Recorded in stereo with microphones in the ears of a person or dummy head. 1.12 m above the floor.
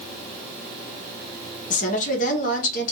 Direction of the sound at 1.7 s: 35° left (ahead or behind).